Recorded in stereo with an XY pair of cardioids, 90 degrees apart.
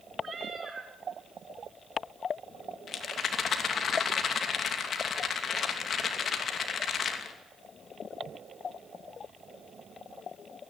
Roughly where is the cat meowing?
Ahead right.